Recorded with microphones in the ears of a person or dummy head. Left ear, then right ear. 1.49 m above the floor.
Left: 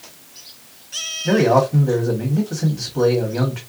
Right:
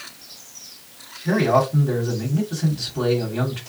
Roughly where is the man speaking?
Left.